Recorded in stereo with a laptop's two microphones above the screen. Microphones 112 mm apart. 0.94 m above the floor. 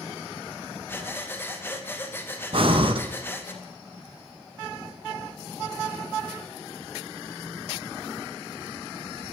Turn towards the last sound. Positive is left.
turn(degrees=-55)  # may be behind; listen again after turning